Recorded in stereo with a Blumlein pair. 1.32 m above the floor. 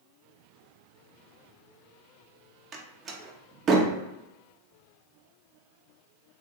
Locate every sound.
2.7 s a door slam: 25° right, 0.7 m